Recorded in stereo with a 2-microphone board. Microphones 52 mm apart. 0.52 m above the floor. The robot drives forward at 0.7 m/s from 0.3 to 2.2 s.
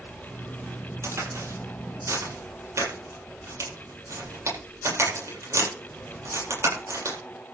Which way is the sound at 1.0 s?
65° right (ahead or behind).